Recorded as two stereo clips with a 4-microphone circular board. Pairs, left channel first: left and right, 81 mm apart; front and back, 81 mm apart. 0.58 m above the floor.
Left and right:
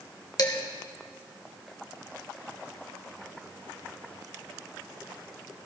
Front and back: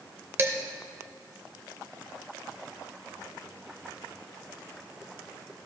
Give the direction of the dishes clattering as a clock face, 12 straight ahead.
8 o'clock.